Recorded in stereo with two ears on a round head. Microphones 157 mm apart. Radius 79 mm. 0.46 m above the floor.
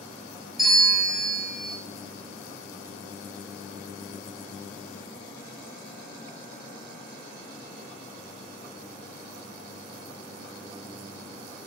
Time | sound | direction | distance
0.6 | a bell | centre (ahead or behind) | 0.6 m